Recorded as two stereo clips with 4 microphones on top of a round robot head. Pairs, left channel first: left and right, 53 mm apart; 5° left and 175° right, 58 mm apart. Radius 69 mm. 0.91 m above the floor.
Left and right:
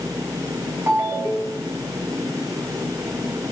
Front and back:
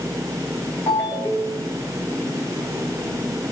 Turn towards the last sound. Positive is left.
turn(degrees=-40)